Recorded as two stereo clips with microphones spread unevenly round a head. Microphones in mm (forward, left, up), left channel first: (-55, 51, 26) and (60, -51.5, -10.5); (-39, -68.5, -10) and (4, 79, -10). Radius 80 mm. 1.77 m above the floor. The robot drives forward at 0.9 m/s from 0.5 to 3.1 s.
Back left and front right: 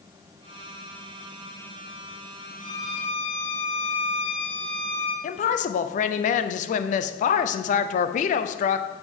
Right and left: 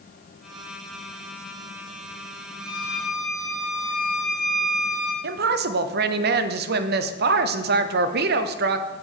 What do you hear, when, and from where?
2.6 s a violin: 155° left, 2 m; by 5.1 s 160° left, 2.5 m
5.2 s a woman speaking: 95° left, 0.7 m